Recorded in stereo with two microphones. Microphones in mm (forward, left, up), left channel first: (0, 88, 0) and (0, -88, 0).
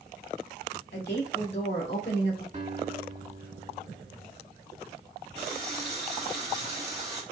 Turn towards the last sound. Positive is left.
turn(degrees=-40)  # may be behind; listen again after turning